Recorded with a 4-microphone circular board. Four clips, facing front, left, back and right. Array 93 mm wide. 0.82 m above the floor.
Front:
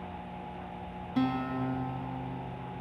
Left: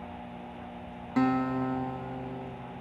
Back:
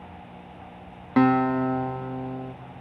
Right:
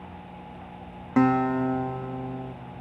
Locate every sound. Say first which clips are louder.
1.2 s a guitar: right 5 dB, back 11 dB; 155° right, 0.9 m